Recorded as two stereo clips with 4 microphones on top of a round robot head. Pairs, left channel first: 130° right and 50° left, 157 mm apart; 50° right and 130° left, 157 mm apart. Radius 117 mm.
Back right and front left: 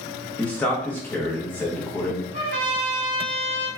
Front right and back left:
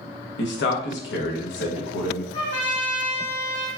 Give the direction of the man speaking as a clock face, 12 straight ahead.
2 o'clock.